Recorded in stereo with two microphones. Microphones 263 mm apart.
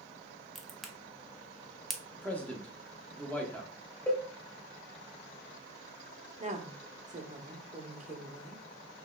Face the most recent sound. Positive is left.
turn(degrees=-30)  # may be behind; listen again after turning